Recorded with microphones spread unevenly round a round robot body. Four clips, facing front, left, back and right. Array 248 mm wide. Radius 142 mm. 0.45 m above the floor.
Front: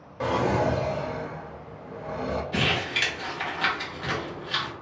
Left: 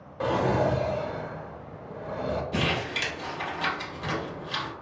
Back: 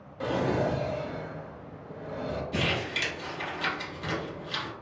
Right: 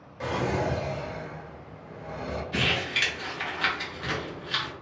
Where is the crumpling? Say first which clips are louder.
Left 1 dB, front 3 dB; 85° left, 1.0 m.